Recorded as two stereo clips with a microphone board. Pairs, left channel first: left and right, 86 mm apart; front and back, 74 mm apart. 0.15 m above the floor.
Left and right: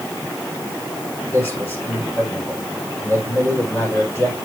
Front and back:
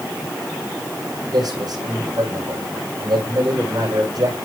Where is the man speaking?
155° left, 7.5 m.